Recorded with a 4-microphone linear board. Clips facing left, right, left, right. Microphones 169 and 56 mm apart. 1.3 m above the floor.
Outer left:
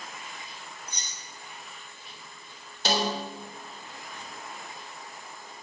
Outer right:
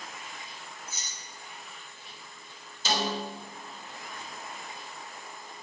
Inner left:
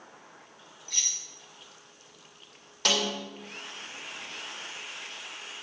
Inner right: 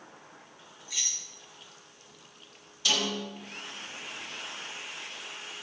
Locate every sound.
0.9 s keys jangling: 5° right (ahead or behind), 1.5 m
2.9 s a snare drum: 65° left (ahead or behind), 3 m